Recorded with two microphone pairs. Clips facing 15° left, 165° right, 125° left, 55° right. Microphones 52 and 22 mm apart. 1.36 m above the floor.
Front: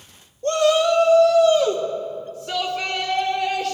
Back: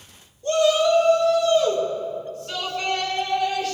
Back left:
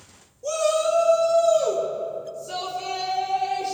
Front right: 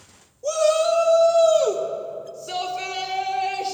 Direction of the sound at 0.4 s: 30° left.